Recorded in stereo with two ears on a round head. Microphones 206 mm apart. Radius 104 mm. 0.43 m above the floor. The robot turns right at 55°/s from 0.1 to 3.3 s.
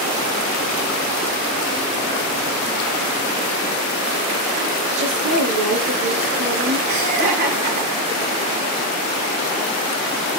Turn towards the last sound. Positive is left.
turn(degrees=-40)  # may be behind; listen again after turning